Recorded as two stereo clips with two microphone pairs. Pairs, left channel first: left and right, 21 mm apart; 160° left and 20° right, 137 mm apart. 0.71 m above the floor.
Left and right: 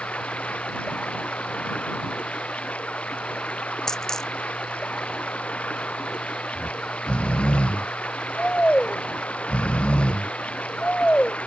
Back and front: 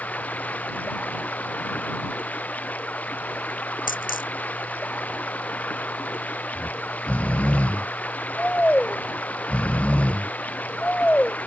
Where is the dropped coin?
155° left.